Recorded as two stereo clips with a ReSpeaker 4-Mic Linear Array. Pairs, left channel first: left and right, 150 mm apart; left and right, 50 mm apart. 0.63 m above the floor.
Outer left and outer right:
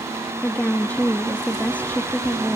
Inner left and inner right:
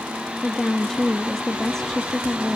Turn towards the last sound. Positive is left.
turn(degrees=10)  # may be behind; listen again after turning